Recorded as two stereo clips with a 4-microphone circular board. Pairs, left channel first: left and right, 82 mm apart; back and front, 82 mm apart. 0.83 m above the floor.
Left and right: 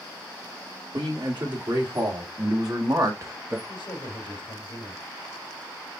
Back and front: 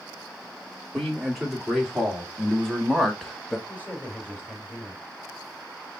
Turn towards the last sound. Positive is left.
turn(degrees=105)